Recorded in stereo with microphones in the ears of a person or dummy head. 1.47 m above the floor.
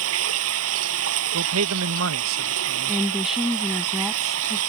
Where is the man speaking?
75° right (ahead or behind).